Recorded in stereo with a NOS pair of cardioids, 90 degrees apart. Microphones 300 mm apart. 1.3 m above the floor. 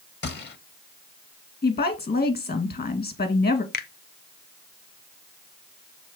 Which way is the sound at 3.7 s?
35° left.